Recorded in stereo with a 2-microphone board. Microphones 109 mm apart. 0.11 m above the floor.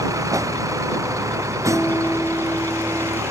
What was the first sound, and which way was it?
A vehicle, 30° right (ahead or behind).